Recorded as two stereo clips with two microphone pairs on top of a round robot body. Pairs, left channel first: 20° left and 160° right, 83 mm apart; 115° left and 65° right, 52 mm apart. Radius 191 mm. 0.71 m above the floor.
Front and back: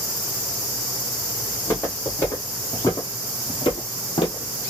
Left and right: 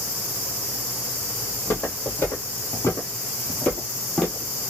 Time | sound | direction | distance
1.5 | footsteps | 90° left | 2.5 m